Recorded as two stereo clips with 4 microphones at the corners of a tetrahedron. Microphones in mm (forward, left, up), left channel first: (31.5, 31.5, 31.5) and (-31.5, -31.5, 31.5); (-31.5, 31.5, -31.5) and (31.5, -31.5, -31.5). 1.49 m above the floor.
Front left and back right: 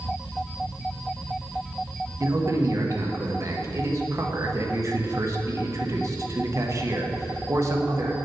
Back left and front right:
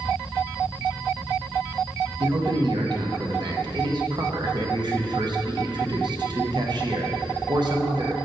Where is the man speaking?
80° right, 1.1 m.